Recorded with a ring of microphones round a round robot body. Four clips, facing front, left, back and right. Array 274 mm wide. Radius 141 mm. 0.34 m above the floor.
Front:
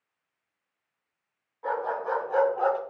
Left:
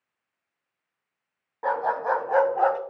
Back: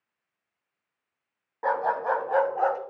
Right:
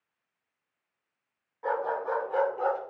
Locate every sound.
1.6 s a dog barking: 140° left, 1.1 m; by 2.8 s 105° left, 1.1 m